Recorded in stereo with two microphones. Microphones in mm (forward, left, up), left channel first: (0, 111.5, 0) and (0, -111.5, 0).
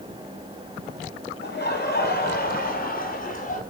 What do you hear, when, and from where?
1.4 s laughter: 50° left (ahead or behind), 6 m; by 3.6 s 40° left (ahead or behind), 4.5 m